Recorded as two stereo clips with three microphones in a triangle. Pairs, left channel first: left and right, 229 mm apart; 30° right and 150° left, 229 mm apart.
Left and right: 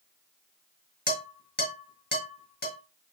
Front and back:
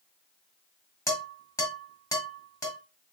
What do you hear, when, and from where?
1.1 s dishes clattering: 45° left, 2.5 m